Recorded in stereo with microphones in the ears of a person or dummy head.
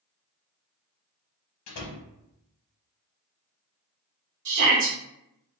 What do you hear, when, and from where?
1.7 s a door slam: 80° left, 0.8 m
4.5 s a shout: 55° right (ahead or behind), 0.9 m